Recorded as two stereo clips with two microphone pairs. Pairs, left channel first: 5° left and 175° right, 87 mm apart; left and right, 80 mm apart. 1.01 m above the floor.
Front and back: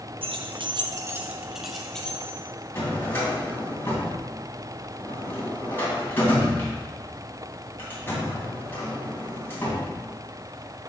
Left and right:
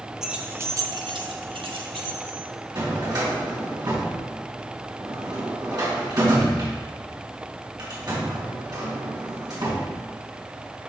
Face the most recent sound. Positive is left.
turn(degrees=-55)